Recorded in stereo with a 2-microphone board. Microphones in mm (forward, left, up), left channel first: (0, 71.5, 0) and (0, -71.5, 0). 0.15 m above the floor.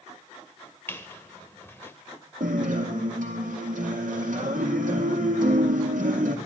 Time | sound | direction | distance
0.9 | a squeak | 15° left (ahead or behind) | 1.1 m
2.4 | a guitar | 80° right | 1.9 m